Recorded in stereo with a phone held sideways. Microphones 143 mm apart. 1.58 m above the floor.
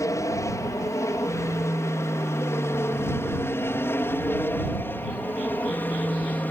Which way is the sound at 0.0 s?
20° left (ahead or behind).